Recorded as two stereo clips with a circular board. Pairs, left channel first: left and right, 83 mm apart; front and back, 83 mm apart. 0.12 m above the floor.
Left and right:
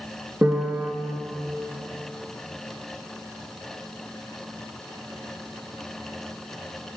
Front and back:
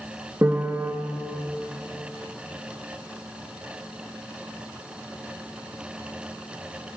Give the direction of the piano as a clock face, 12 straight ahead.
5 o'clock.